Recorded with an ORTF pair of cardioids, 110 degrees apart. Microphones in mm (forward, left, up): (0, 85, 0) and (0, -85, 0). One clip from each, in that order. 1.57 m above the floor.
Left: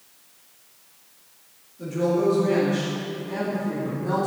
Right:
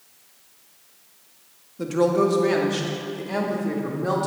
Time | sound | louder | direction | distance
1.8 | a woman speaking | right 3 dB | 65° right | 2 m